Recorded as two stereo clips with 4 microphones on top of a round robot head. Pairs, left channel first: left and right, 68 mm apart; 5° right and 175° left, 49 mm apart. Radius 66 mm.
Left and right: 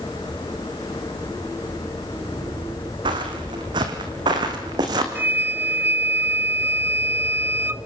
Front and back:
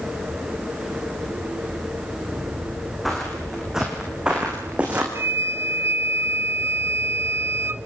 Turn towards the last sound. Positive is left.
turn(degrees=-150)